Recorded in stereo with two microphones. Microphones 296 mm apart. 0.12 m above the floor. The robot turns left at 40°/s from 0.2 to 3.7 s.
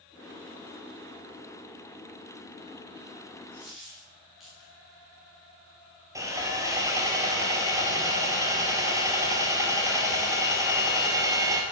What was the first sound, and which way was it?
A dropped coin, 10° right (ahead or behind).